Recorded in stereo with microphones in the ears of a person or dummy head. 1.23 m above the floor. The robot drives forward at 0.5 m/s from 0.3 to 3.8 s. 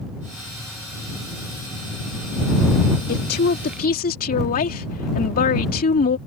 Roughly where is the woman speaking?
Left.